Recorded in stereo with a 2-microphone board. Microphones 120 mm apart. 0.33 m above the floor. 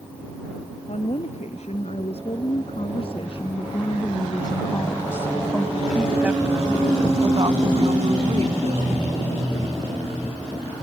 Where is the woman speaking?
65° left (ahead or behind); by 9.0 s 65° right (ahead or behind).